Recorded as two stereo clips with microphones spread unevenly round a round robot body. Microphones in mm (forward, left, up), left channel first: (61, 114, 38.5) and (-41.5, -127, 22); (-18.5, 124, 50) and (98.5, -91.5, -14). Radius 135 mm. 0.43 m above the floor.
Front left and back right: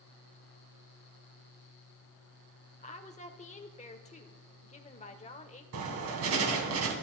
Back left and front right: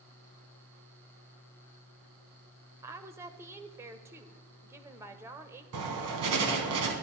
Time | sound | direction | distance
2.8 | a woman speaking | 5° left | 1.5 m
5.7 | writing | 80° right | 3.5 m